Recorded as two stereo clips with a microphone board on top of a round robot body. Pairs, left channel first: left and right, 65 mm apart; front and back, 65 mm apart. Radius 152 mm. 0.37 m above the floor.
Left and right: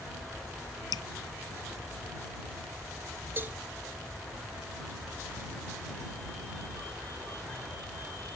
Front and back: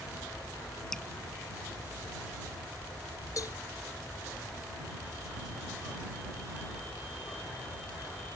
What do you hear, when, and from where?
0.9 s dripping: 80° left
3.4 s a cowbell: 35° right